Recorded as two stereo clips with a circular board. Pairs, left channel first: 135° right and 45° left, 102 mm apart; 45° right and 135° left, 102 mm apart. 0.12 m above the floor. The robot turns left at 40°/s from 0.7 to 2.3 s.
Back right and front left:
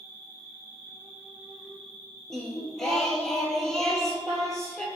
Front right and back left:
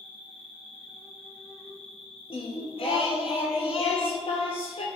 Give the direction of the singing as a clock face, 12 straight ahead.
2 o'clock.